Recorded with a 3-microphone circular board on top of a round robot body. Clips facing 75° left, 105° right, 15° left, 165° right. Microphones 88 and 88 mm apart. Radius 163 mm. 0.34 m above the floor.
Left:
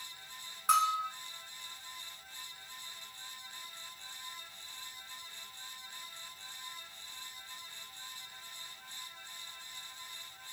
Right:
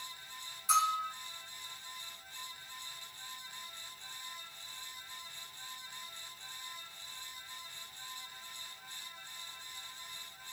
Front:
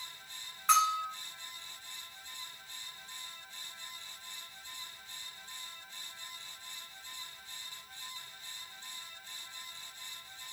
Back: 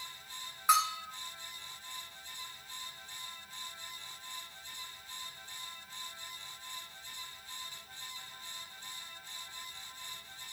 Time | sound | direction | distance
0.7 | a bell | 115° left | 1.6 m